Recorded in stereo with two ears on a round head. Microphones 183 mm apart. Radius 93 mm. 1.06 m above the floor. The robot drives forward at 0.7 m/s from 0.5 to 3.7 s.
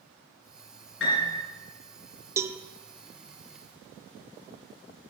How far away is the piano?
About 6 m.